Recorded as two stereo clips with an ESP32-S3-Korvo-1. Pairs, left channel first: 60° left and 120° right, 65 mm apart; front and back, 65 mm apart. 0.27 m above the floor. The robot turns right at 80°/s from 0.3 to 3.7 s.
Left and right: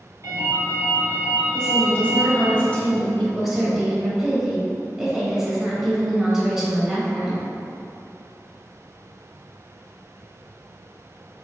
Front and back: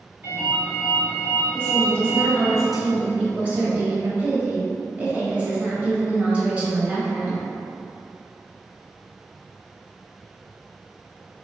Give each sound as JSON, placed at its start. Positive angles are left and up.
{"t": 0.2, "sound": "a ringtone", "azimuth_deg": -130, "distance_m": 1.4}
{"t": 1.5, "sound": "a woman speaking", "azimuth_deg": 0, "distance_m": 0.9}